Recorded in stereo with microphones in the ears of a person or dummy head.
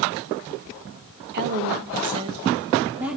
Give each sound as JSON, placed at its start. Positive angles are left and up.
{"t": 1.3, "sound": "a woman speaking", "side_deg": -55, "distance_m": 1.4}